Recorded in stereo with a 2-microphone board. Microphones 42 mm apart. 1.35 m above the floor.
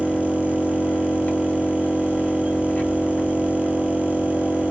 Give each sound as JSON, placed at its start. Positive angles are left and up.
{"t": 0.0, "sound": "an engine running", "side_deg": 30, "distance_m": 1.3}